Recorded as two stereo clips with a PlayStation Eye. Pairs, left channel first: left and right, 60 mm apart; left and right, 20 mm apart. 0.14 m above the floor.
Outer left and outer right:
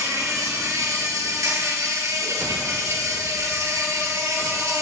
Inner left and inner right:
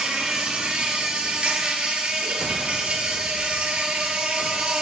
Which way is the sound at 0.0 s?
55° right (ahead or behind).